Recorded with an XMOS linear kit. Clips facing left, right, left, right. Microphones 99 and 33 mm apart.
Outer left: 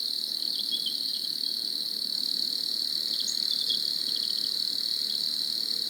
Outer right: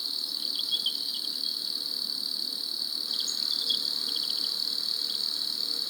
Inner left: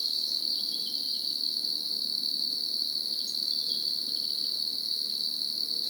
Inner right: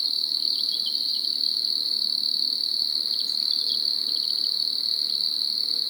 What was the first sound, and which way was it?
An insect, 55° right (ahead or behind).